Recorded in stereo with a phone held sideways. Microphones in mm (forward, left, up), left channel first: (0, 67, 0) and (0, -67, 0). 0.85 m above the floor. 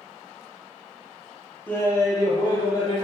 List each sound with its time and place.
1.7 s laughter: 10° left (ahead or behind), 0.7 m; by 3.0 s 35° left (ahead or behind), 1.0 m